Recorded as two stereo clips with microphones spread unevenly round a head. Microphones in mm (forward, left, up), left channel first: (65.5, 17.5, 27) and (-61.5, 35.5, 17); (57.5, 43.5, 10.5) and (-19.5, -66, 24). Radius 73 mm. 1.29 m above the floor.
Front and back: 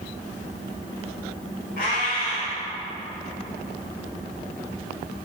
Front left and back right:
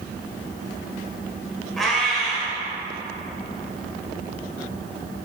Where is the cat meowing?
35° right, 2.5 m.